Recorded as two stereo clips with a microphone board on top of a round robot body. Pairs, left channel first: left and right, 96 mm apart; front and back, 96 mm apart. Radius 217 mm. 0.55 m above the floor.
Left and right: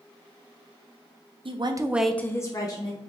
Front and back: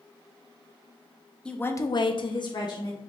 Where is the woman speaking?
80° right, 1.0 m; by 3.0 s 45° left, 1.8 m.